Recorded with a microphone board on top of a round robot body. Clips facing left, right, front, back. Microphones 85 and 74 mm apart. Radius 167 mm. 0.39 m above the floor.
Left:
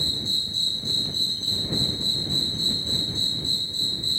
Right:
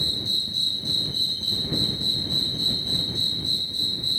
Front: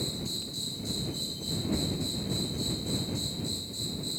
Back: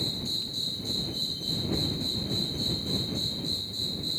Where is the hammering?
I don't hear hammering.